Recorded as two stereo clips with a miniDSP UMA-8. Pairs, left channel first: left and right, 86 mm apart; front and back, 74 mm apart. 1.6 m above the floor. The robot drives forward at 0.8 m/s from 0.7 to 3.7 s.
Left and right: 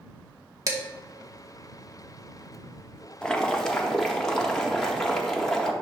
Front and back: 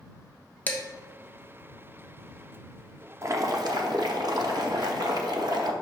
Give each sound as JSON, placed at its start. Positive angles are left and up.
{"t": 0.7, "sound": "dishes clattering", "azimuth_deg": -55, "distance_m": 1.0}
{"t": 3.2, "sound": "boiling", "azimuth_deg": 165, "distance_m": 0.5}